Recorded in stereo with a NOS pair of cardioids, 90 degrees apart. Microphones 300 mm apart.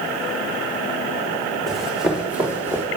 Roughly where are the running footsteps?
Ahead.